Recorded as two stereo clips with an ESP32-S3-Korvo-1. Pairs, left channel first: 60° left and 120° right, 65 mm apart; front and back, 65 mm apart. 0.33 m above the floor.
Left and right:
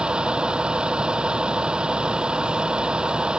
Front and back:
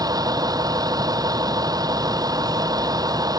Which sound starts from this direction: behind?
A vehicle, at 0.0 s.